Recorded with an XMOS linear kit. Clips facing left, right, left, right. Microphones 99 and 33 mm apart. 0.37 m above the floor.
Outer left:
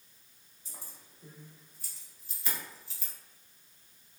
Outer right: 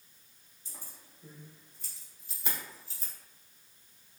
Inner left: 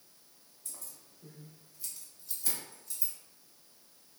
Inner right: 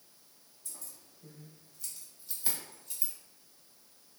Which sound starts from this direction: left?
Keys jangling, at 0.7 s.